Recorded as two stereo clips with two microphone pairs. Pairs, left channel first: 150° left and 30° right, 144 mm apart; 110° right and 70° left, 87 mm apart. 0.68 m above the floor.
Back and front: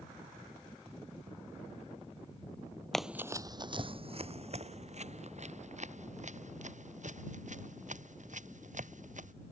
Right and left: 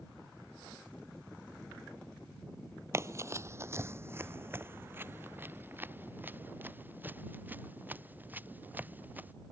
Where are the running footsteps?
60° left; by 9.3 s straight ahead.